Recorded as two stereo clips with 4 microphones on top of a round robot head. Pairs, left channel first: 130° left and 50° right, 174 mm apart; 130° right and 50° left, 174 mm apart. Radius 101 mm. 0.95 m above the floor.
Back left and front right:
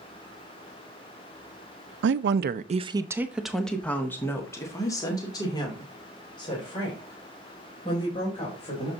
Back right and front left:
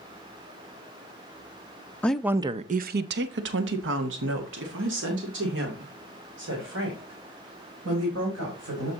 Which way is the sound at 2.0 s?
50° right.